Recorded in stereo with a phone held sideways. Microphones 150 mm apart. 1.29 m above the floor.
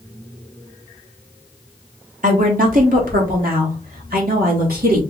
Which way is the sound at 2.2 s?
60° right (ahead or behind).